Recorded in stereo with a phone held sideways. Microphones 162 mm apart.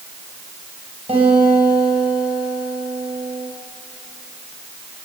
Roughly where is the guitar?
Right.